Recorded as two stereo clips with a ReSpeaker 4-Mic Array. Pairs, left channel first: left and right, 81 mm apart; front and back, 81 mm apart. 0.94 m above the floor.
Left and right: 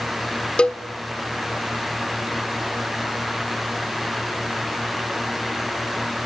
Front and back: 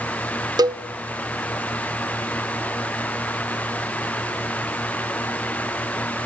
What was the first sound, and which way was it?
A cowbell, 165° left.